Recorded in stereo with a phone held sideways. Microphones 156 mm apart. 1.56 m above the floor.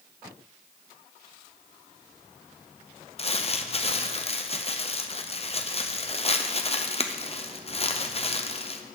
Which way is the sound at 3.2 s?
40° left (ahead or behind).